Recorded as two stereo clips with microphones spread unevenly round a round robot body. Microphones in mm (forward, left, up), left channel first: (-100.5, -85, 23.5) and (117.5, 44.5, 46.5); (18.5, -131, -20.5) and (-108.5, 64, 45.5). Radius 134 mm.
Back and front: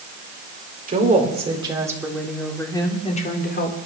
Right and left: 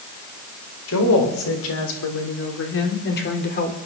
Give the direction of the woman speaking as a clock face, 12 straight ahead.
1 o'clock.